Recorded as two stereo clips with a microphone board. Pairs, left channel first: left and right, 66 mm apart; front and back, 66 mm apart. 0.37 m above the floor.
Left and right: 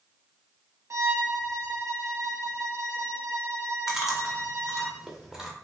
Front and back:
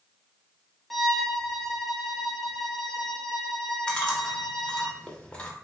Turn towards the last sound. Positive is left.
turn(degrees=-25)